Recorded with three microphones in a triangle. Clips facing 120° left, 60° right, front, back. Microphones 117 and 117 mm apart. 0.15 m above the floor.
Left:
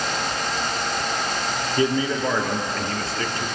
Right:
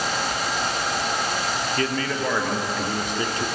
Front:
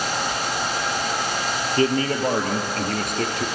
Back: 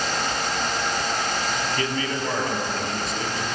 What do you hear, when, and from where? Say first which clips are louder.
1.8 s a man speaking: left 7 dB, front 6 dB; 50° left, 3.5 m; by 3.5 s straight ahead, 3.5 m